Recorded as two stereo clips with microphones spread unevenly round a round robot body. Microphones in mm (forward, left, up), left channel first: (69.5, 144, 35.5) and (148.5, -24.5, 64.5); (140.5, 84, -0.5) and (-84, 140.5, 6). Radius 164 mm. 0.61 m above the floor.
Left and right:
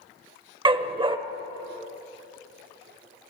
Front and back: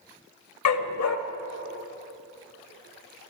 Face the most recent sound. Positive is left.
turn(degrees=0)